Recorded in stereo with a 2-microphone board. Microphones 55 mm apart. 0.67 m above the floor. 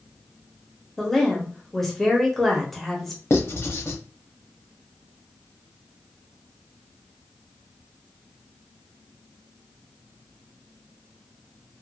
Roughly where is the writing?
Left.